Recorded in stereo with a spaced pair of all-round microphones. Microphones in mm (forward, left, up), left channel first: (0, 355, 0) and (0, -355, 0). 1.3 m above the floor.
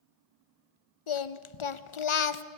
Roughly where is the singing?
Left.